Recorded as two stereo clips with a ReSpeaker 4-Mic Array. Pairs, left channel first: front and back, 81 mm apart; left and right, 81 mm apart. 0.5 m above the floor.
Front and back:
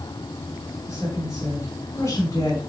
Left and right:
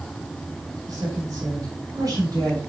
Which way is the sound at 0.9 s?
50° right.